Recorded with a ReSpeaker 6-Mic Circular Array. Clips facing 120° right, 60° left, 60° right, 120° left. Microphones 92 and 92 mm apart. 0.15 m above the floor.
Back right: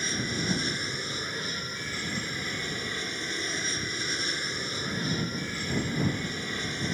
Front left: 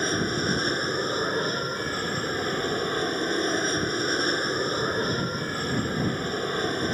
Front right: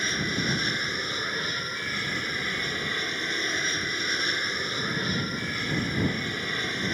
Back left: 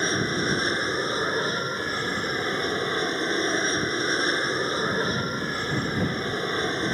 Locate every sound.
0.0 s an aircraft: 75° left